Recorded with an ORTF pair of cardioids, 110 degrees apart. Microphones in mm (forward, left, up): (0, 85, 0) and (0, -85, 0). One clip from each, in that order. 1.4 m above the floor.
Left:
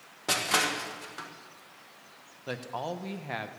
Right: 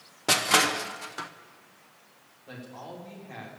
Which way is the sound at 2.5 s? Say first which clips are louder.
Left 8 dB; 70° left.